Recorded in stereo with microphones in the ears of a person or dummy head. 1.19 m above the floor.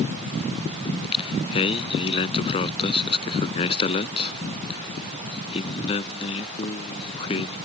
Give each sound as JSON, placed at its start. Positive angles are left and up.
{"t": 0.8, "sound": "singing", "side_deg": 30}